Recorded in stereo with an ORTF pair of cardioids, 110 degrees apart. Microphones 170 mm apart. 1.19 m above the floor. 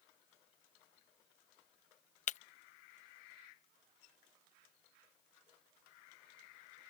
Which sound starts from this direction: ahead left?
Breaking glass, at 2.3 s.